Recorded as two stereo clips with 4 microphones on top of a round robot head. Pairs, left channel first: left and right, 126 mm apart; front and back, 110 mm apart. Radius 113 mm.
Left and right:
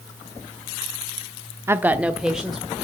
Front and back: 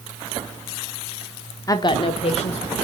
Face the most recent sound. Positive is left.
turn(degrees=0)